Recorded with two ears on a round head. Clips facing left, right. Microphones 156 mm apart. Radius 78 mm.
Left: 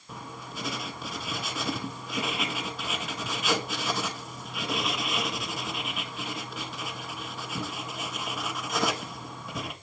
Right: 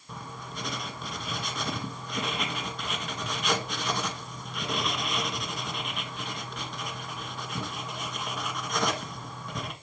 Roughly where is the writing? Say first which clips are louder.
Even; centre.